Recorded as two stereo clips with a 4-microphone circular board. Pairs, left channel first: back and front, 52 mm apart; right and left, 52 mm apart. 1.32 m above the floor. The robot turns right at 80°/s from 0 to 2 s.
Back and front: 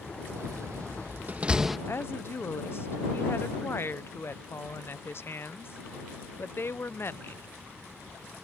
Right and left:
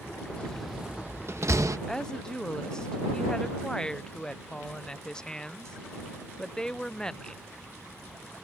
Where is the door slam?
25° right; by 1.8 s 90° left.